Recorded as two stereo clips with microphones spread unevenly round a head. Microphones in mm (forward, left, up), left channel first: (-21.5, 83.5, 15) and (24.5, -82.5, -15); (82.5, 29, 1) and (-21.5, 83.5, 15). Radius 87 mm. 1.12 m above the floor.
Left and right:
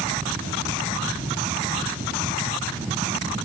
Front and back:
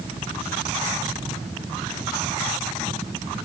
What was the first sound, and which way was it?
Only background noise.